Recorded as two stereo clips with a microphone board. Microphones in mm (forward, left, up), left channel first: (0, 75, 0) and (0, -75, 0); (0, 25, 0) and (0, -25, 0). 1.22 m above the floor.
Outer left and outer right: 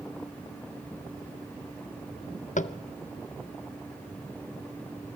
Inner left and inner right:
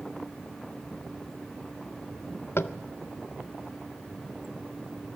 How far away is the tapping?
About 0.6 m.